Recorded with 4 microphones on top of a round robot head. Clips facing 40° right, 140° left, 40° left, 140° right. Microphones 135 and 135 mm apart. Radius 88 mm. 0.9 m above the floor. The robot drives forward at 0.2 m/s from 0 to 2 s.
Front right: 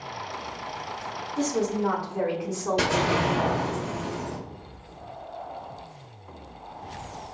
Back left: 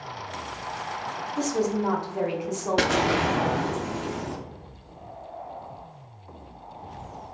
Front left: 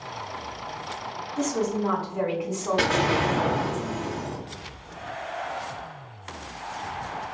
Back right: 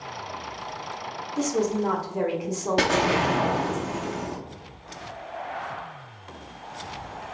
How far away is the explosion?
About 0.7 m.